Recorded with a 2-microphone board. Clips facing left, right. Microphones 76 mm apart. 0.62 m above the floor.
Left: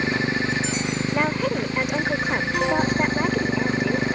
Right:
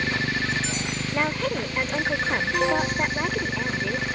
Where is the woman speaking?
10° left (ahead or behind).